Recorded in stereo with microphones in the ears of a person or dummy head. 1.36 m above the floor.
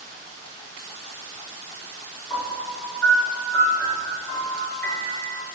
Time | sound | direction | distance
2.3 | a piano | 5° left (ahead or behind) | 1.6 m